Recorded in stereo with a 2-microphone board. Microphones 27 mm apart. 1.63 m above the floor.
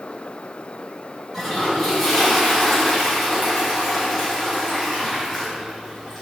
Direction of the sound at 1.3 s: 5° left (ahead or behind).